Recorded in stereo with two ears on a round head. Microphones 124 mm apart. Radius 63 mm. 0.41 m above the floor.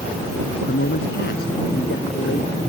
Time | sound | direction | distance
0.7 | a man speaking | 75° left (ahead or behind) | ?